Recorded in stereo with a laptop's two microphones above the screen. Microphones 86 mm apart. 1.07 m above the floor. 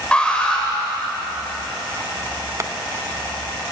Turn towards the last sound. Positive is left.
turn(degrees=-35)  # may be behind; listen again after turning